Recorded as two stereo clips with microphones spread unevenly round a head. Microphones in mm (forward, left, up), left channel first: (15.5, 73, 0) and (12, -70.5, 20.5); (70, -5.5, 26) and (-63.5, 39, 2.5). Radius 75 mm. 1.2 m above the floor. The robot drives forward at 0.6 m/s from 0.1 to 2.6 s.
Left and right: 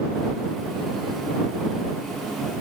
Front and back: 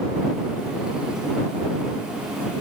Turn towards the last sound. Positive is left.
No sound to turn to.